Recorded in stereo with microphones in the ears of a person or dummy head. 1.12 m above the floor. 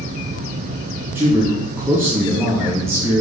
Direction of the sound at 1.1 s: 10° right (ahead or behind).